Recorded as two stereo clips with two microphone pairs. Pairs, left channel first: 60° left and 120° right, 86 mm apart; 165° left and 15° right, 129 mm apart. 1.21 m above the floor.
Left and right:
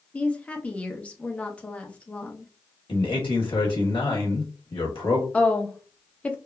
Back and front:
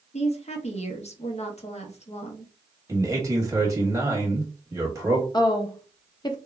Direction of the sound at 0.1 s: 135° left.